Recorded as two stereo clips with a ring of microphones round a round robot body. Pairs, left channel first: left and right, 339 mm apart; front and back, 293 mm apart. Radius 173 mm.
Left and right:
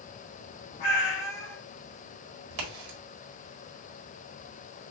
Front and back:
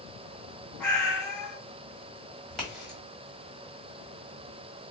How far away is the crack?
About 1.8 m.